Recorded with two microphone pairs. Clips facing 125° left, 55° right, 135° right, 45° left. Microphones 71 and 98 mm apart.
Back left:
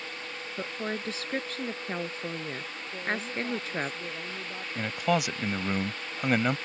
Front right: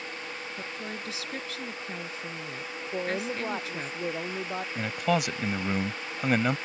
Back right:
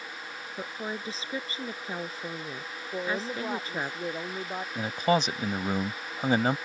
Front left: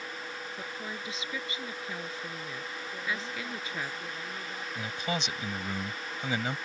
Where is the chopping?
I don't hear chopping.